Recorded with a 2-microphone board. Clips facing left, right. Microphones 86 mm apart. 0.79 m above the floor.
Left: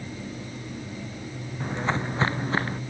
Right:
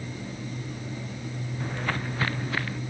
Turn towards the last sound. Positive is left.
turn(degrees=35)  # may be behind; listen again after turning